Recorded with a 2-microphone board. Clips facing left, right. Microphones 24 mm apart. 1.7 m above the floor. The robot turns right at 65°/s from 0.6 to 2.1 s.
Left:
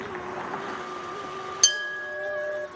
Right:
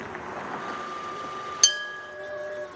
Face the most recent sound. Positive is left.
turn(degrees=15)